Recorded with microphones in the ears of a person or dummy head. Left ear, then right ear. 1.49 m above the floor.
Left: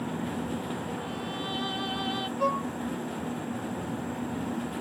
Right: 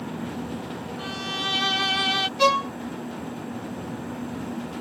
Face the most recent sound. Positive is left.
turn(degrees=-70)  # may be behind; listen again after turning